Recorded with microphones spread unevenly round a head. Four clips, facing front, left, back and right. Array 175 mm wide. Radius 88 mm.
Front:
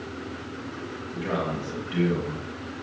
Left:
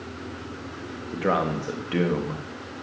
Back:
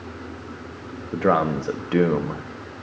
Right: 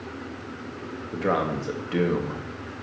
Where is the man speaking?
175° left, 1.8 m.